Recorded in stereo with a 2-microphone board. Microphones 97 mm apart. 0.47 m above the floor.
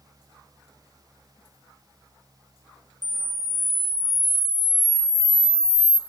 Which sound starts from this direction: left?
A camera shutter, at 3.0 s.